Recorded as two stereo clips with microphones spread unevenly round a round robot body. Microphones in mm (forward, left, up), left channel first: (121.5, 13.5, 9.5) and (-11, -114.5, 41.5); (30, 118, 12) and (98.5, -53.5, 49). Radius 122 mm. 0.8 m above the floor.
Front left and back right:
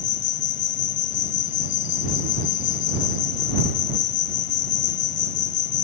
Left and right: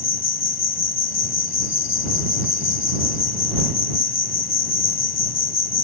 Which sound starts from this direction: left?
An insect, at 0.0 s.